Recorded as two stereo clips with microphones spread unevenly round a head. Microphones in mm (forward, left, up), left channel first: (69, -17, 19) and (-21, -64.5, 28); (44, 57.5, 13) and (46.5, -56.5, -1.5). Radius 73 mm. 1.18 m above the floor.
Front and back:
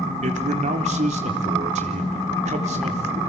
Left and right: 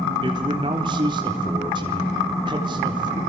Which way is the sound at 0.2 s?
150° right.